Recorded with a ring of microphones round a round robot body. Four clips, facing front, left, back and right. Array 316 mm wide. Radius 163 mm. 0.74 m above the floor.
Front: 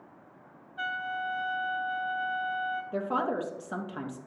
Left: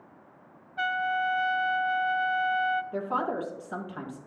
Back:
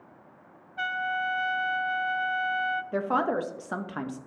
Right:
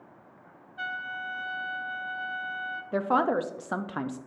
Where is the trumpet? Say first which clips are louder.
Left 8 dB, back 4 dB; 115° left, 0.6 m.